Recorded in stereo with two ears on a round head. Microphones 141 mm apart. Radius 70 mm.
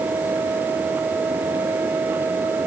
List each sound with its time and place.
Only background noise.